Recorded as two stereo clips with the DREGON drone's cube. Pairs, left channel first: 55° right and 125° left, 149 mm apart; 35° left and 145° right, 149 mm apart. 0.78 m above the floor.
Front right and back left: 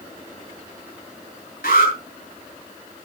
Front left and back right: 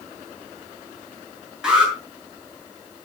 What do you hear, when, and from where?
1.6 s an alarm: 60° right, 8 m